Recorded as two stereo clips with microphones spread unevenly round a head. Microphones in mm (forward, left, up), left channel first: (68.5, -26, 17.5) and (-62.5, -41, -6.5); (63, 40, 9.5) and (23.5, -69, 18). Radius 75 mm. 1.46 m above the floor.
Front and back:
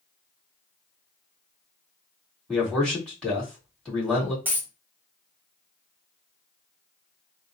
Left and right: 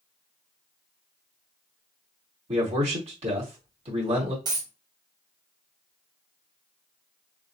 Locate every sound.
2.5 s a man speaking: 75° right, 2.5 m
4.5 s a dropped coin: 90° right, 0.9 m